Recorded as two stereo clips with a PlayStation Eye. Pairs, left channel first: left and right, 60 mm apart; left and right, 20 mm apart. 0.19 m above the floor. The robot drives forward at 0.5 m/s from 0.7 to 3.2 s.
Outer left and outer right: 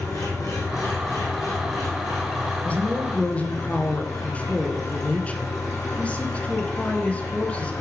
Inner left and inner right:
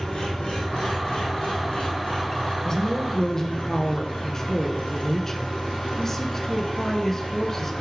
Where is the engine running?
70° left (ahead or behind), 5 m; by 7.8 s 85° left, 4.5 m.